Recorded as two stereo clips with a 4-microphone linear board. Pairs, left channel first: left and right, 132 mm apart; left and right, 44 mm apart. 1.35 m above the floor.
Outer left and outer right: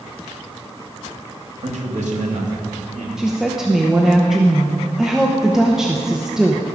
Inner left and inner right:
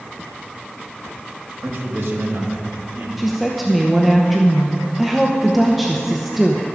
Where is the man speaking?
65° right (ahead or behind), 1.7 m; by 3.1 s 75° right (ahead or behind), 2.5 m.